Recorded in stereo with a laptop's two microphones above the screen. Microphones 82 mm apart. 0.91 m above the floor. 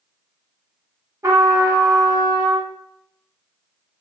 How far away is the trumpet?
About 1.1 m.